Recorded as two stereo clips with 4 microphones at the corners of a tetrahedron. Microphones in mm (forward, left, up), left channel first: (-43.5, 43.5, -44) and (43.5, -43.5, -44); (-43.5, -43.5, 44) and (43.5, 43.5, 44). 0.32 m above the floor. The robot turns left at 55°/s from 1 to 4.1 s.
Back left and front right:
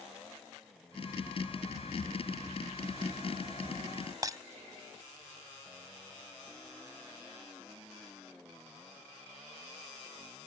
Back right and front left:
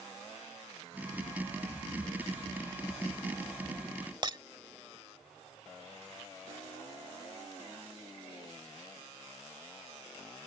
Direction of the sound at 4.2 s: 5° left.